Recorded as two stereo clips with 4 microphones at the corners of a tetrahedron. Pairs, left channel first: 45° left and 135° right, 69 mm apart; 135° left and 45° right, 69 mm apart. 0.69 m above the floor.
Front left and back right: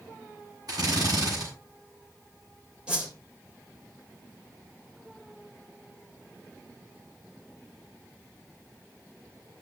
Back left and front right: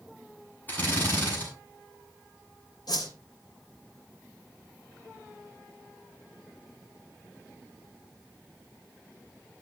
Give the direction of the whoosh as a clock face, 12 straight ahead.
7 o'clock.